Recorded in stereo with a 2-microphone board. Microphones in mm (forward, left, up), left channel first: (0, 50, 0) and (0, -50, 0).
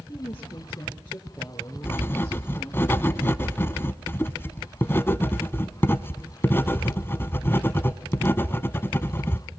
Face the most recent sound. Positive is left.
turn(degrees=25)  # may be behind; listen again after turning